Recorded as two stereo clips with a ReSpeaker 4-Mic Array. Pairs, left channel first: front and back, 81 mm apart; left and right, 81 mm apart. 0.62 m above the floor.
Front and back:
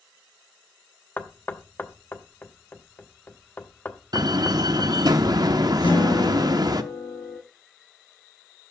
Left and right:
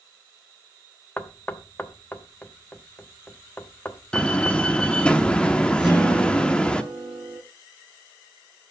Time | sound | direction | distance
1.2 | knocking | 40° left | 0.9 m
4.1 | a door slam | 165° left | 0.7 m
5.8 | a guitar | 5° right | 6 m